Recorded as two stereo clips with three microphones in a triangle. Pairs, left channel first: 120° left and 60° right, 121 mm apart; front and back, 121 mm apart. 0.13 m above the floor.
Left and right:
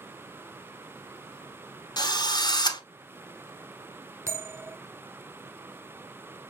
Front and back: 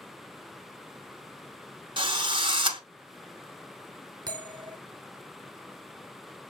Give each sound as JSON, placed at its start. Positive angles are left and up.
{"t": 2.0, "sound": "a drill", "azimuth_deg": 160, "distance_m": 0.7}
{"t": 4.3, "sound": "a bell", "azimuth_deg": -125, "distance_m": 0.8}